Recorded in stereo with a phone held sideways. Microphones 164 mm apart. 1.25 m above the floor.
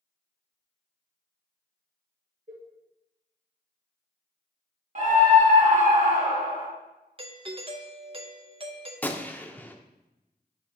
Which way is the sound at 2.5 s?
55° right (ahead or behind).